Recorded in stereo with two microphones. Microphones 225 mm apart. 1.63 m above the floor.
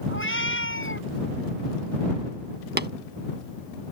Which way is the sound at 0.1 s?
60° left (ahead or behind).